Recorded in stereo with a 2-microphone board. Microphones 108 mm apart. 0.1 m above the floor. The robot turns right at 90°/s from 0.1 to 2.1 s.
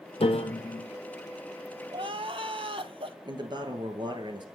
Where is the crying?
45° right (ahead or behind), 0.6 m; by 3.1 s 60° right (ahead or behind), 0.6 m.